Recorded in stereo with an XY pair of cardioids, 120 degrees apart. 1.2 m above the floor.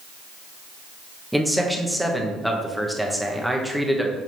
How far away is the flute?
I don't hear a flute.